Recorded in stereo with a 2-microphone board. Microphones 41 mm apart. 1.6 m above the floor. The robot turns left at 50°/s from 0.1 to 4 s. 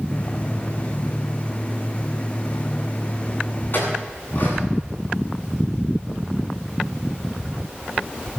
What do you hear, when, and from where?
3.7 s a clink: 55° left (ahead or behind), 9 m; by 4.6 s 45° left (ahead or behind), 9 m